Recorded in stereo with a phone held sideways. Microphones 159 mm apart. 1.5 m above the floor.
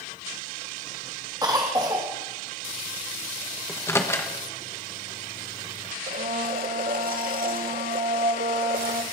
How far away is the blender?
About 1.0 m.